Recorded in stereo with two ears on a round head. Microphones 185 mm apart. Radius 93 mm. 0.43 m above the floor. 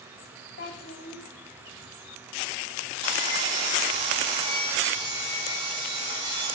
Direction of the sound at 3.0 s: 30° right (ahead or behind).